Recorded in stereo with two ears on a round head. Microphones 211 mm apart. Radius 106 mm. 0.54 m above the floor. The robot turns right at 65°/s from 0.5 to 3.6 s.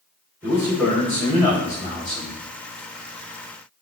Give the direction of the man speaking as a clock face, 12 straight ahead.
1 o'clock.